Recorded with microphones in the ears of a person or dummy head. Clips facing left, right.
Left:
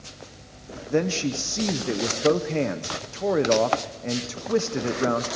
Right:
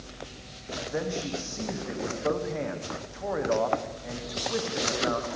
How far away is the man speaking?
About 0.9 m.